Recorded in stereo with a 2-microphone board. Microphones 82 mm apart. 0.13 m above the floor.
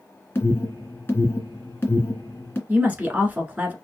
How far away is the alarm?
About 2.5 m.